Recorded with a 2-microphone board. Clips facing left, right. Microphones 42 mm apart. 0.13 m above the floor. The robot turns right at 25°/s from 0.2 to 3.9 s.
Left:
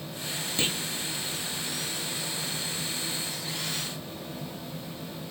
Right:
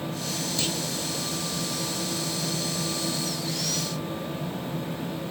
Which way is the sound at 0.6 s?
30° left (ahead or behind).